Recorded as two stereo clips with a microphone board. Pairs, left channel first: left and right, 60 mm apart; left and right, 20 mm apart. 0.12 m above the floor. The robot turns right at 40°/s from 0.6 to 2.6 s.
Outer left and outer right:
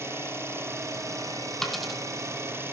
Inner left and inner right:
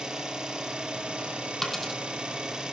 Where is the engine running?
130° right, 3 m; by 2.7 s 50° right, 3 m.